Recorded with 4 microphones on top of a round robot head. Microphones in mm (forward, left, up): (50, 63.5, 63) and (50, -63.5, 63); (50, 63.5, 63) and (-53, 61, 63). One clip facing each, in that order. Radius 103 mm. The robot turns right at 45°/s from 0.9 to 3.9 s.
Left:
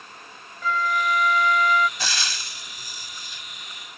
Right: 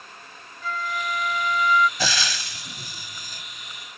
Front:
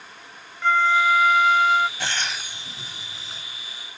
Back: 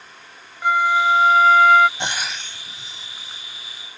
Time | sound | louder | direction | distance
0.6 | a flute | left 5 dB, back 2 dB | 105° left | ?
2.0 | frying | right 4 dB, back 2 dB | 100° right | ?